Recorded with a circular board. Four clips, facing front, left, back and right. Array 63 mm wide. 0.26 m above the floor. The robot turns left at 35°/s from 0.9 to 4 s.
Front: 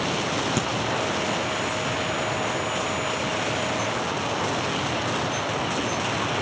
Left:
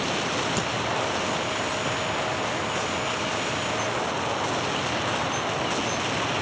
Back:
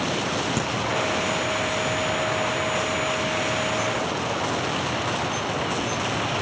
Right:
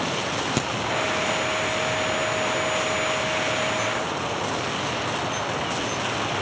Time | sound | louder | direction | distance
0.6 | a crack | right 2 dB, even | 80° right | 5 m